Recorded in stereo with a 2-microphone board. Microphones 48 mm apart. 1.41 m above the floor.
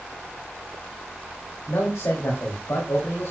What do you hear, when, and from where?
1.7 s a man speaking: 85° left, 2.5 m; by 3.3 s 80° left, 3.5 m